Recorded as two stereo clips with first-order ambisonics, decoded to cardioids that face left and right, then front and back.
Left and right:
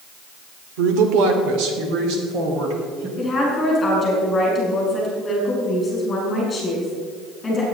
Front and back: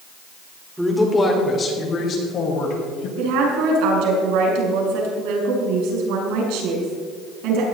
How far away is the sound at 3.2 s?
About 5.5 m.